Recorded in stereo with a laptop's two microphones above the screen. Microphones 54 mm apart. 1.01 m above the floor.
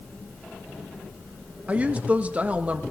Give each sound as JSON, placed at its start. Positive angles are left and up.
{"t": 1.7, "sound": "a woman speaking", "side_deg": -25, "distance_m": 1.4}